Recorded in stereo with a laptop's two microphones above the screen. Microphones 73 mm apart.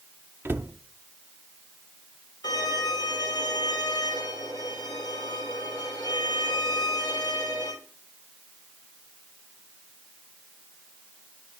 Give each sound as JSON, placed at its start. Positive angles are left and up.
{"t": 0.5, "sound": "a cupboard door", "side_deg": -30, "distance_m": 0.5}
{"t": 2.4, "sound": "a violin", "side_deg": 65, "distance_m": 3.0}